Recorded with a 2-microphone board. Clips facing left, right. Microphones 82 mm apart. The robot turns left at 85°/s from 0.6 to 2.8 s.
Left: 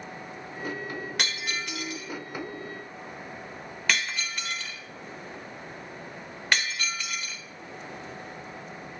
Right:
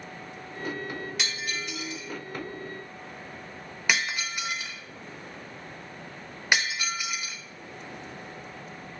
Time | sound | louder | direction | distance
1.2 | breaking glass | left 1 dB | 55° left (ahead or behind) | 1.1 m